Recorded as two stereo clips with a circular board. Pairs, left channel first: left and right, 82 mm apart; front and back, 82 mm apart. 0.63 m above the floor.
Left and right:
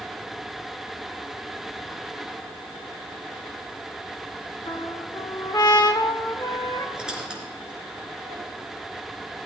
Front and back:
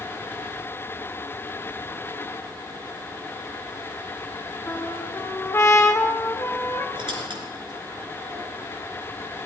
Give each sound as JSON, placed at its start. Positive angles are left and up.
{"t": 4.7, "sound": "a trumpet", "azimuth_deg": 55, "distance_m": 1.2}
{"t": 7.0, "sound": "a squeak", "azimuth_deg": -170, "distance_m": 3.5}